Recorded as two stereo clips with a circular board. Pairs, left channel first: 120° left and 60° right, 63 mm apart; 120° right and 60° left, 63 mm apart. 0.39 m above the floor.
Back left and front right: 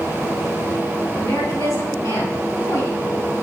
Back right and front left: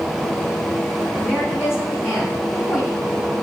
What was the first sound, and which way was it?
A woman speaking, 135° left.